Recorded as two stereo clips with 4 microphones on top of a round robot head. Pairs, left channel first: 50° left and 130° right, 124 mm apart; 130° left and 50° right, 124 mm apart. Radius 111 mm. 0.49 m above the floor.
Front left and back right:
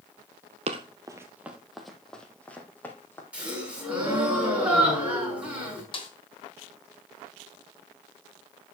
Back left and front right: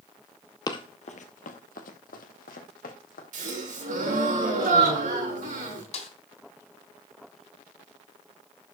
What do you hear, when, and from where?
0.7 s running footsteps: 170° right, 0.8 m; by 3.2 s 125° left, 2.5 m
3.3 s a gasp: 50° right, 5.5 m
5.9 s a snare drum: 100° left, 2.5 m